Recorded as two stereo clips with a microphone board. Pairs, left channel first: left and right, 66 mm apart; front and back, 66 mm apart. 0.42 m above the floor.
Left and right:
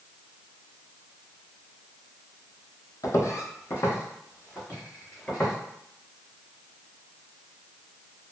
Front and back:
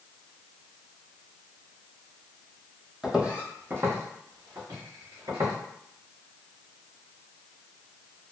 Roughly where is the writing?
I don't hear writing.